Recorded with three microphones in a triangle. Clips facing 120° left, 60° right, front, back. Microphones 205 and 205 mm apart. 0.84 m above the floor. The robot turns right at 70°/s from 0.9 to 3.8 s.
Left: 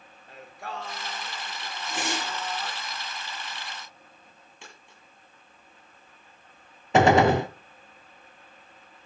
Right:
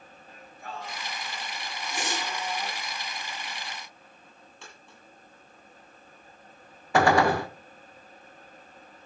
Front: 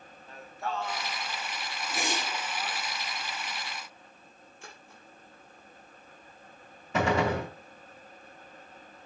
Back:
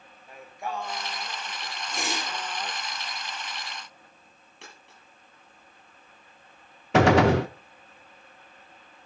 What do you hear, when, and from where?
0.3 s singing: 105° left, 1.8 m; by 2.8 s 120° right, 1.8 m
1.9 s a whoosh: 80° left, 5 m; by 2.5 s 120° left, 5 m
4.6 s a dropped coin: 165° right, 8 m
6.9 s a gunshot: 175° right, 0.9 m